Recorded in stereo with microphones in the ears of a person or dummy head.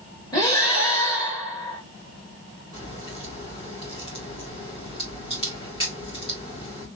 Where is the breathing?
20° left (ahead or behind), 2.5 m.